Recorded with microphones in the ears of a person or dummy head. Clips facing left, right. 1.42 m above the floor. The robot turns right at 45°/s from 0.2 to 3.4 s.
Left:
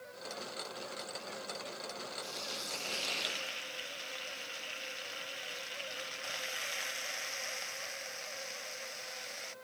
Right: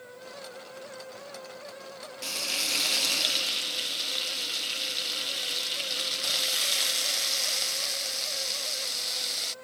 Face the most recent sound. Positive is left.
turn(degrees=-50)